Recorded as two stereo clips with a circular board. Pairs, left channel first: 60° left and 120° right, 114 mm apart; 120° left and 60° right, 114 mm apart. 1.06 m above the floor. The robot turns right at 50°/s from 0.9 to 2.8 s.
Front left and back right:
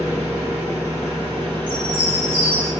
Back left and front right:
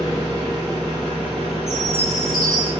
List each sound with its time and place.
0.0 s an engine running: 110° right, 1.1 m; by 2.8 s 15° right, 1.1 m
1.7 s a chime: 40° right, 1.5 m; by 2.7 s 10° left, 1.5 m